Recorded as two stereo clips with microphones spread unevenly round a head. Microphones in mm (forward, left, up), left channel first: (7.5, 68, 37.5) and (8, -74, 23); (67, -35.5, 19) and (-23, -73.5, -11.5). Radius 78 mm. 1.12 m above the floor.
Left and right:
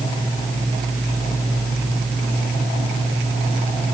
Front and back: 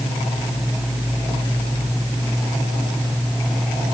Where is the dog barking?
No dog barking in this recording.